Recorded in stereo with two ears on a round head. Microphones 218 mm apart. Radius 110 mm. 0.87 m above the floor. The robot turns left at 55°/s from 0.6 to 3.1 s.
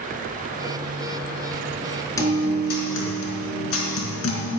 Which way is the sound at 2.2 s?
165° left.